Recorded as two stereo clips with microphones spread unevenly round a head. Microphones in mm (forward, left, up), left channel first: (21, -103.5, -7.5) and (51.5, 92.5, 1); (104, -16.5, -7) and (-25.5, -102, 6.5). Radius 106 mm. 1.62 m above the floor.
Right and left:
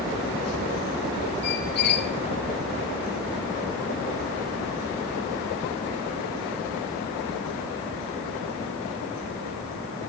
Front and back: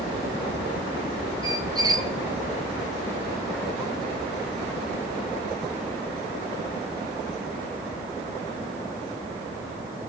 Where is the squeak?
95° right, 1.0 m.